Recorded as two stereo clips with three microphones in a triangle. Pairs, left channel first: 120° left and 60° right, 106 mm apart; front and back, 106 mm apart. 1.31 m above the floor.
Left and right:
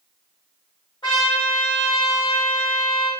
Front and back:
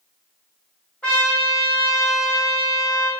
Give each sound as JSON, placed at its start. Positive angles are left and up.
{"t": 1.0, "sound": "a trumpet", "azimuth_deg": 80, "distance_m": 1.7}